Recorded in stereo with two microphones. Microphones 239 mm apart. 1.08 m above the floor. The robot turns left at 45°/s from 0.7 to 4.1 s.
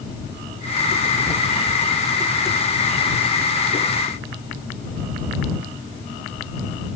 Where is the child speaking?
No child speaking in this recording.